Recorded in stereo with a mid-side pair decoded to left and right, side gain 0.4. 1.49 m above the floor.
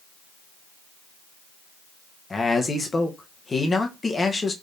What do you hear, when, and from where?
2.3 s a man speaking: 30° left, 1.1 m